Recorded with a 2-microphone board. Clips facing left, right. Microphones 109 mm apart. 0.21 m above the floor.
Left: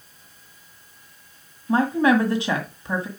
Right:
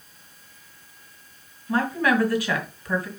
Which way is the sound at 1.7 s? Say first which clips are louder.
Left 4 dB; 25° left (ahead or behind).